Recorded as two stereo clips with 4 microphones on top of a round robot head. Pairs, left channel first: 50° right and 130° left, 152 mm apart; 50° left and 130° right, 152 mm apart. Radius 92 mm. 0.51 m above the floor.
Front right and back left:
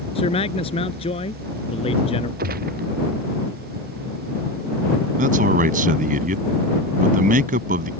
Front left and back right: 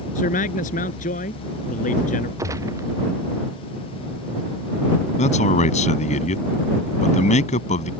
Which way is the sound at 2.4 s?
160° left.